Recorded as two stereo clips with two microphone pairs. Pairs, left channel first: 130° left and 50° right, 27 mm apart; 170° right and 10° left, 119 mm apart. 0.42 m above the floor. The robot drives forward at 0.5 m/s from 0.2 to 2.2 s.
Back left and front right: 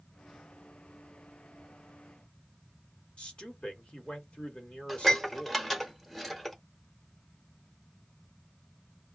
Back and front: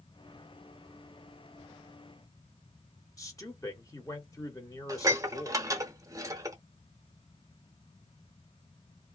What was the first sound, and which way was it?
A man speaking, 140° left.